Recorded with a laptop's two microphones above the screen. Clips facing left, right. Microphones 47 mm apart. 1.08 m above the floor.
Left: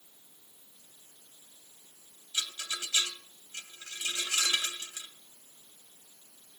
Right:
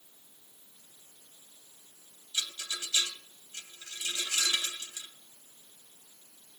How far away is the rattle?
About 1.9 m.